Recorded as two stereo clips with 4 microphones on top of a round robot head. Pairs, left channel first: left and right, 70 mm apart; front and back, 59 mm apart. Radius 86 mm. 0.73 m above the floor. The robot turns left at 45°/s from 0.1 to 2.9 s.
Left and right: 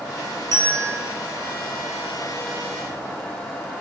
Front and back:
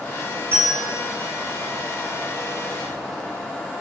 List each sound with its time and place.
0.5 s a bell: 120° right, 2 m; by 0.9 s 140° right, 2 m